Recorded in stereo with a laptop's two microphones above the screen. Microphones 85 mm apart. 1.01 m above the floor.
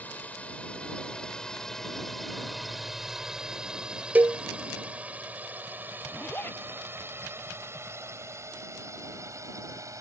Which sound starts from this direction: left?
A zipper, at 6.1 s.